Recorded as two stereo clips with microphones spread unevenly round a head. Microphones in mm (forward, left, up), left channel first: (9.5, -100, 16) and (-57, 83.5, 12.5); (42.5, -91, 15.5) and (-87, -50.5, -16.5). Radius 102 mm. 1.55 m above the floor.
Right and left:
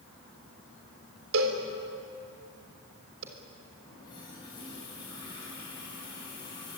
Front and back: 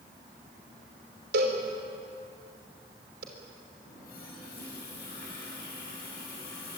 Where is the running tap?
Straight ahead, 9.5 m.